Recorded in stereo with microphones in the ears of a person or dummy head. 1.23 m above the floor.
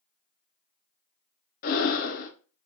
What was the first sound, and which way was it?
Breathing, 45° left (ahead or behind).